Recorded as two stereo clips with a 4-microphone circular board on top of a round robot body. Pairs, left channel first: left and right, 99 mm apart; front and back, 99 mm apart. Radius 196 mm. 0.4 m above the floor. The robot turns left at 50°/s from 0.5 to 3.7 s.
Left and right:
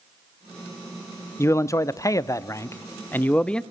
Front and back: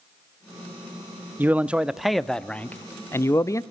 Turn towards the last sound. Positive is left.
turn(degrees=10)